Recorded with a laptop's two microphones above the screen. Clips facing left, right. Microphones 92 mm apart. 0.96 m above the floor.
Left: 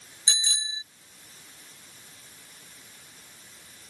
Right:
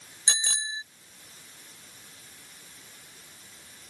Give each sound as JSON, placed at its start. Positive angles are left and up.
{"t": 0.3, "sound": "a bicycle bell", "side_deg": -55}